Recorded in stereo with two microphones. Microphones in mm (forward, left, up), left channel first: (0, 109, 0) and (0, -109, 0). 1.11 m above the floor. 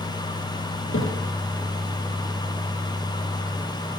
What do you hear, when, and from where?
0.9 s a thud: 75° left (ahead or behind), 7 m